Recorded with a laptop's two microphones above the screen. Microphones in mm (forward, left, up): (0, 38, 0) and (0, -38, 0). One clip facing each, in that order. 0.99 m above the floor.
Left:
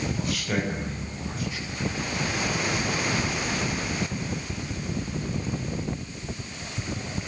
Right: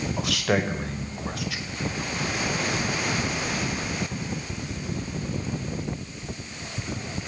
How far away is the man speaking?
About 5.5 m.